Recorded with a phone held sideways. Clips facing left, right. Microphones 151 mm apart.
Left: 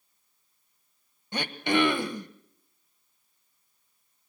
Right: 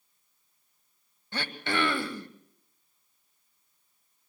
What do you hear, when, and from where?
1.3 s throat clearing: 20° left (ahead or behind), 1.1 m